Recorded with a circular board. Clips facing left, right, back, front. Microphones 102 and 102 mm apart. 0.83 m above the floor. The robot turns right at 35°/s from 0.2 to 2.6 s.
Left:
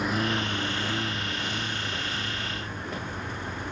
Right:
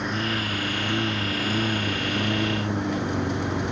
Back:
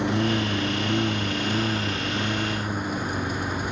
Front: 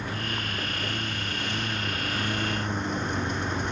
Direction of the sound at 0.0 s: Straight behind.